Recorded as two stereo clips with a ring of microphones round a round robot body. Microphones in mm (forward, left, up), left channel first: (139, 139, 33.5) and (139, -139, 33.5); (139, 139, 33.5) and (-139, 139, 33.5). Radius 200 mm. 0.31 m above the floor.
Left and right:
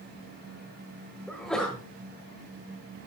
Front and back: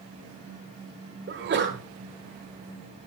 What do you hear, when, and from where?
1.3 s a sneeze: 175° left, 1.3 m